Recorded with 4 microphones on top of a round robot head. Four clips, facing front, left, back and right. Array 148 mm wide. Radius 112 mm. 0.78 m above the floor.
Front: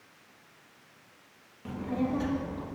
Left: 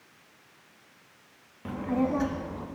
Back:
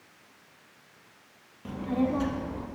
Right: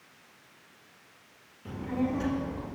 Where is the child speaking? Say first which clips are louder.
Left 3 dB, back 3 dB; 105° left, 1.1 m; by 2.7 s 135° left, 1.8 m.